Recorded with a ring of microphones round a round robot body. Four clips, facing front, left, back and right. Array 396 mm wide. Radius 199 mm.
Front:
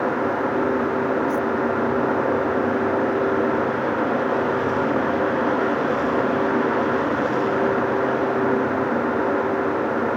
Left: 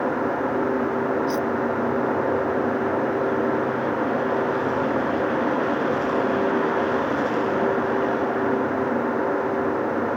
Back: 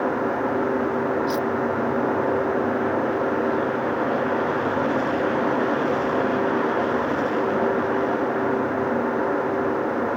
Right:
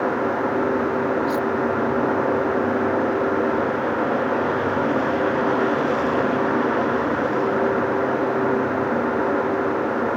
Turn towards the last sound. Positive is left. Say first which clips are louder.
# right 2 dB, front 2 dB
turn(degrees=-175)